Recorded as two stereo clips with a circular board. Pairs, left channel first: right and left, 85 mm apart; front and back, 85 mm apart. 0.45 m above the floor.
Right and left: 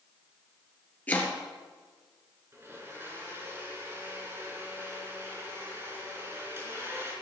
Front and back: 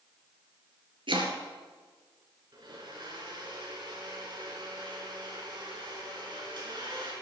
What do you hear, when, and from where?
1.1 s chopping: 160° right, 2.5 m
2.5 s a blender: 150° left, 5 m